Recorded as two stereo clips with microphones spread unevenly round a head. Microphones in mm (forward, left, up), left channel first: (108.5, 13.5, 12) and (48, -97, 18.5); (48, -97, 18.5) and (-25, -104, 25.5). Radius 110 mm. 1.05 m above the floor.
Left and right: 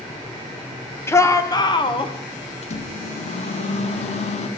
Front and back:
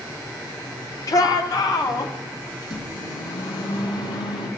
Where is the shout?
5° right, 1.2 m; by 2.1 s 30° left, 1.4 m.